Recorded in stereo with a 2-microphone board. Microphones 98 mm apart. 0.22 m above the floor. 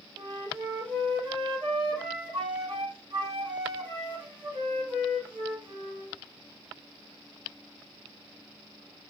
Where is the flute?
50° right (ahead or behind), 2 m.